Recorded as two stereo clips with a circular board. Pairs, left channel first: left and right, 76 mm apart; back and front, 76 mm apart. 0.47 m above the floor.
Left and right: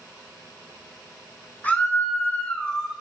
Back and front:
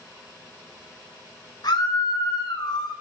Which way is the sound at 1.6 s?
160° left.